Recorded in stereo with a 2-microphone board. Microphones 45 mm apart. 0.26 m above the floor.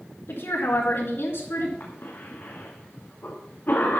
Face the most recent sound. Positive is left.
turn(degrees=55)  # may be behind; listen again after turning